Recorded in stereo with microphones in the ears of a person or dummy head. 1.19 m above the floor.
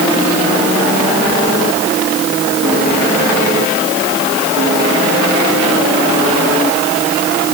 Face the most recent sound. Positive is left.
No sound to turn to.